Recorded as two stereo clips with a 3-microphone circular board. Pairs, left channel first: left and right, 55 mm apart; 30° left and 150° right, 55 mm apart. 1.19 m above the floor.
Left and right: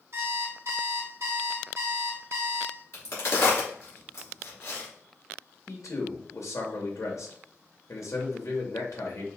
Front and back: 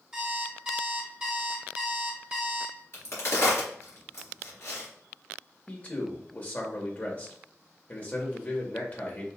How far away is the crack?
About 2.5 m.